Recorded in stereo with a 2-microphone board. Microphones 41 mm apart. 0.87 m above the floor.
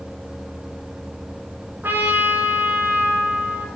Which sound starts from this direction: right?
A trumpet, at 1.8 s.